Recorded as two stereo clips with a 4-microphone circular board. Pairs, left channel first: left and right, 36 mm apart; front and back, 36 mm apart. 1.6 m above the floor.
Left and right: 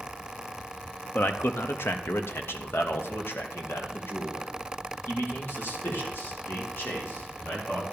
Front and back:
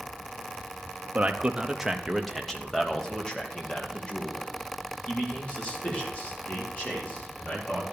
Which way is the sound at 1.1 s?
120° left.